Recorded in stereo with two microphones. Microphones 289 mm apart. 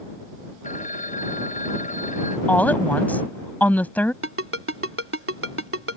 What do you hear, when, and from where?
0.6 s a phone ringing: 25° left (ahead or behind)
2.5 s a woman speaking: 5° left (ahead or behind)
4.2 s a ringtone: 50° right (ahead or behind)